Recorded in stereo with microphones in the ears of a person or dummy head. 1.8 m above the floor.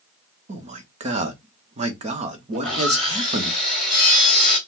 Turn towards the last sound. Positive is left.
turn(degrees=-5)  # may be behind; listen again after turning